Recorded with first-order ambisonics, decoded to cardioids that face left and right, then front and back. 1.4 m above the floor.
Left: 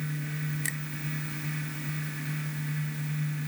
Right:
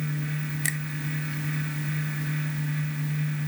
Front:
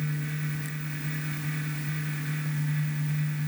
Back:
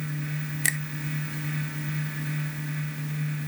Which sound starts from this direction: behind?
A finger snap, at 0.6 s.